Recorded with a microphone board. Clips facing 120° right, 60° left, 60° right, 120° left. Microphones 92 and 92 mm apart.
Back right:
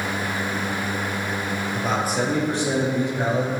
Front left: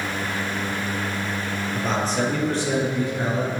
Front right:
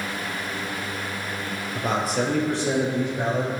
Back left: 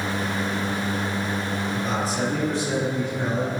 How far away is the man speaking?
About 4 m.